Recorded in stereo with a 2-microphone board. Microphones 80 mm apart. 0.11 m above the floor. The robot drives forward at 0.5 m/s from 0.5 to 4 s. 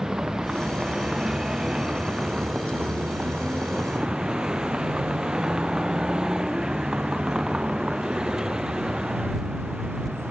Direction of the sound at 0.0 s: 5° right (ahead or behind).